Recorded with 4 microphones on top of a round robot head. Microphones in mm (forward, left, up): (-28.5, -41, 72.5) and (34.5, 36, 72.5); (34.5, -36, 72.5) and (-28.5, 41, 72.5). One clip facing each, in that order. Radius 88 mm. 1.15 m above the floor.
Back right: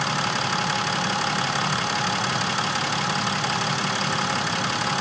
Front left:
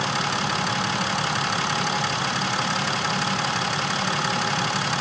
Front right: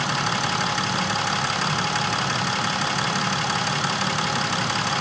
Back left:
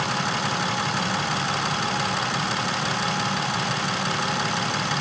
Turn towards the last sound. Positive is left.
No sound to turn to.